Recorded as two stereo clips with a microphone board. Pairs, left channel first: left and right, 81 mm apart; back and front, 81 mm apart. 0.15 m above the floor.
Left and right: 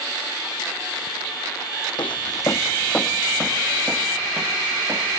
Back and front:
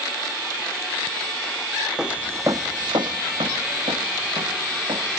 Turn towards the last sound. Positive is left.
turn(degrees=-25)